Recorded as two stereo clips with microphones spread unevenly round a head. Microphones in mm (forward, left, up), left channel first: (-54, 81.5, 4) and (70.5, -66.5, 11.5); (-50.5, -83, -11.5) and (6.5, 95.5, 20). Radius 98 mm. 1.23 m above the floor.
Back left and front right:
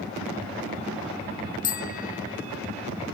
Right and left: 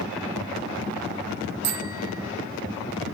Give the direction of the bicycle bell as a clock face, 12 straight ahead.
9 o'clock.